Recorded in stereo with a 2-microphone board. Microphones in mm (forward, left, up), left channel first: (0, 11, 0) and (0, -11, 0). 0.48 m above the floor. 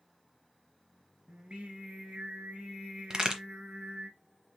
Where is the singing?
75° right (ahead or behind), 1.2 m.